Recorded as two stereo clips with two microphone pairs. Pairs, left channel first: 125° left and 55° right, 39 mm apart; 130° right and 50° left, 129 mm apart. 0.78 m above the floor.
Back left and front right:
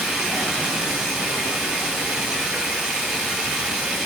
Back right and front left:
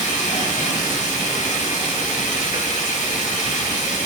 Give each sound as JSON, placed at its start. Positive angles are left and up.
{"t": 0.0, "sound": "running water", "azimuth_deg": -130, "distance_m": 4.0}